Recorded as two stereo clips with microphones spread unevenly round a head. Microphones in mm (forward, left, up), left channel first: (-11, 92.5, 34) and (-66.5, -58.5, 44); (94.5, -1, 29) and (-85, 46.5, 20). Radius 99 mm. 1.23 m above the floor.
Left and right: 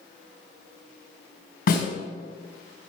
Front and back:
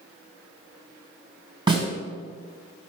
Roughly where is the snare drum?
Left.